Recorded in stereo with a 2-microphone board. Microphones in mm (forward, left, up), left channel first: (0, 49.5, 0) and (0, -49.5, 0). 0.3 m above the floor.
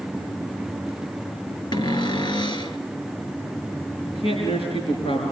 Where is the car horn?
I don't hear a car horn.